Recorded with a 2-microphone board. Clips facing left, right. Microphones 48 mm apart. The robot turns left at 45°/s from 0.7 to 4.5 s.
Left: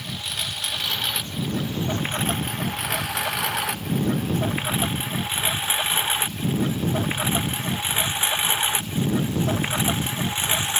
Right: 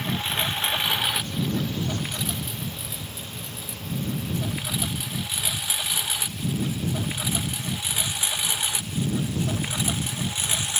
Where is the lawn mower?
30° right (ahead or behind); by 10.8 s 30° left (ahead or behind).